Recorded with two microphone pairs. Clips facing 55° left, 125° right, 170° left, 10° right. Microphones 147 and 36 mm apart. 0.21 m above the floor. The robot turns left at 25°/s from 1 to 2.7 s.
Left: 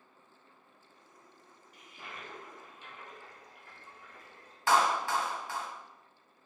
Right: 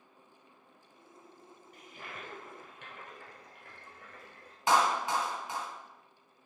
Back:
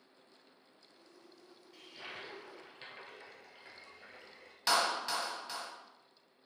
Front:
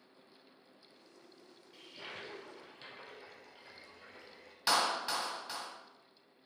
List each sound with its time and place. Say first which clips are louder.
1.7 s a toilet flushing: right 1 dB, even; 100° right, 1.3 m; by 4.6 s 125° right, 1.3 m
4.7 s a clap: even, even; 95° right, 0.8 m